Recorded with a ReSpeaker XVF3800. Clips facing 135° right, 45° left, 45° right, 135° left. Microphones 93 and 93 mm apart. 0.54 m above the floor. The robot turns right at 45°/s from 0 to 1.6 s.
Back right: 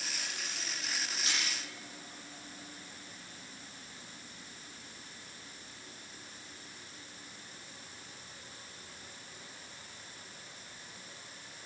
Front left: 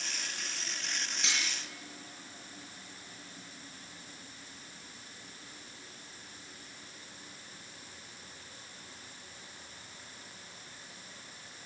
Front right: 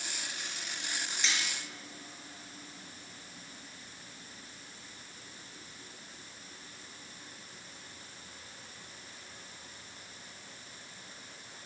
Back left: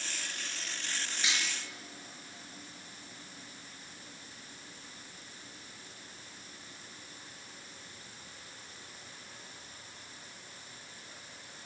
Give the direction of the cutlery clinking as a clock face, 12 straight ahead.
10 o'clock.